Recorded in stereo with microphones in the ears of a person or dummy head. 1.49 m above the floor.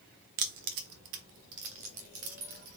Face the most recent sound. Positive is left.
turn(degrees=-80)